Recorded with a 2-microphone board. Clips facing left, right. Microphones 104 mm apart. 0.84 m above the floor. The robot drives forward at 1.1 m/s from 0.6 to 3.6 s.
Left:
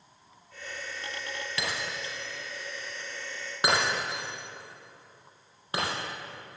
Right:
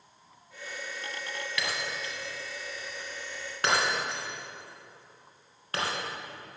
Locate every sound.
1.6 s breaking glass: 25° left (ahead or behind), 2.5 m; by 5.9 s 15° left (ahead or behind), 4.5 m